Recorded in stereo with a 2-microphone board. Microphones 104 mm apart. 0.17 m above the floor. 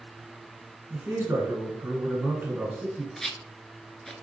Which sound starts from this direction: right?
A man speaking, at 0.9 s.